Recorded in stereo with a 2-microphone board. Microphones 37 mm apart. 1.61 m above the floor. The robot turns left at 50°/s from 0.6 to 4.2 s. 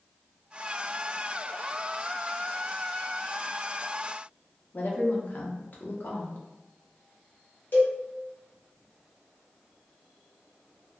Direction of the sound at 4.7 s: 50° left (ahead or behind).